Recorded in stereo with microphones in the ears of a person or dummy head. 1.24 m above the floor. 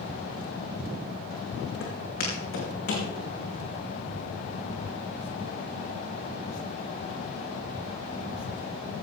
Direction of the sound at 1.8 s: 70° left (ahead or behind).